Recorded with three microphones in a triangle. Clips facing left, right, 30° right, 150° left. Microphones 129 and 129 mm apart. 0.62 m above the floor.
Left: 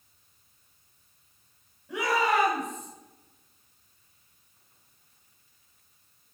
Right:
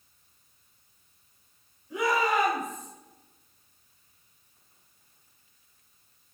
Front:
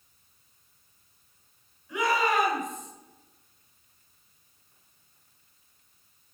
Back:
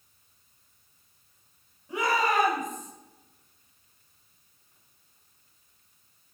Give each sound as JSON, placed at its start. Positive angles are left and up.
{"t": 1.9, "sound": "a shout", "azimuth_deg": 95, "distance_m": 3.5}